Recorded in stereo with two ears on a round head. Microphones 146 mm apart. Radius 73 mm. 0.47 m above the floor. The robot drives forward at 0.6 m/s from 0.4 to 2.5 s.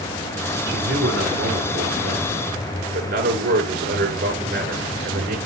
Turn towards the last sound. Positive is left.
turn(degrees=-60)  # may be behind; listen again after turning